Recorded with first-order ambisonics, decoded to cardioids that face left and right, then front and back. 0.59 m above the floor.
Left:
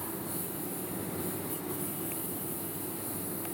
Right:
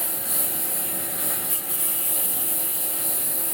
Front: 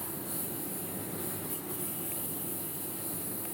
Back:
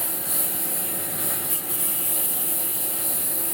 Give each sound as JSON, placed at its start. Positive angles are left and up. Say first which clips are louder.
{"t": 0.0, "sound": "a lawn mower", "louder": "right 7 dB, back 9 dB", "azimuth_deg": -135}